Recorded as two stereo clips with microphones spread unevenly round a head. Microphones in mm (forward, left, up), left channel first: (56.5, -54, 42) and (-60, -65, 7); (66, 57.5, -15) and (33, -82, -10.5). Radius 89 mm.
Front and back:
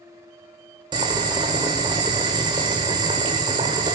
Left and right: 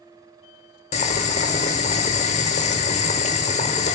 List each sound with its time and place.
0.9 s boiling: 110° left, 1.2 m